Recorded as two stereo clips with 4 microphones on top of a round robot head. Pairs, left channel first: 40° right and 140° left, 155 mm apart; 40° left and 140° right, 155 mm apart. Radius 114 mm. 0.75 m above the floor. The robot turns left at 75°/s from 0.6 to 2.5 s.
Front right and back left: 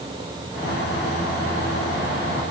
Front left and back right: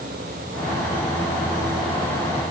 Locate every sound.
Only background noise.